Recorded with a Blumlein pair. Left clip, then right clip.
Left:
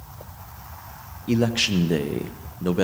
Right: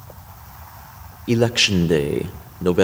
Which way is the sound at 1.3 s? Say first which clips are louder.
Right 5 dB; 15° right.